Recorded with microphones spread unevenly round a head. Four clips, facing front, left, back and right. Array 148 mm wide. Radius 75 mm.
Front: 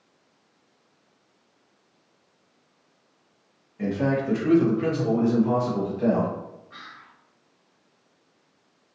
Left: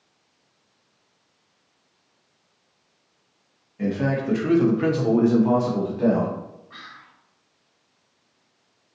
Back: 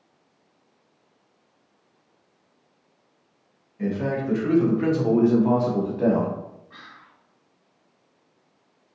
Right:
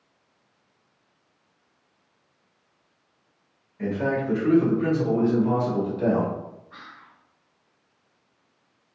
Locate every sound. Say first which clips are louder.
3.8 s a man speaking: left 1 dB, front 1 dB; 40° left, 1.0 m; by 6.3 s 175° left, 1.0 m
6.7 s whispering: left 1 dB, front 2 dB; 130° left, 1.6 m